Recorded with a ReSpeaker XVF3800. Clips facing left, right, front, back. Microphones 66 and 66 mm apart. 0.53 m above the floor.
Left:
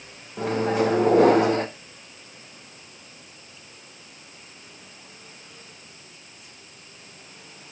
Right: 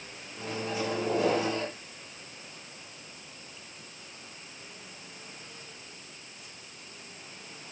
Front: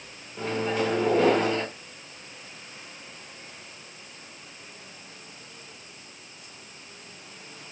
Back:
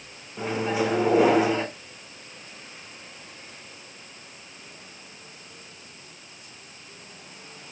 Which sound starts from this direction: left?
A microwave, at 0.4 s.